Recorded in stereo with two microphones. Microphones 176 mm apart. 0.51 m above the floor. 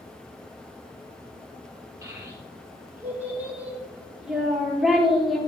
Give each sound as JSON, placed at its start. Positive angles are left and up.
{"t": 2.0, "sound": "a child speaking", "side_deg": -15, "distance_m": 6.5}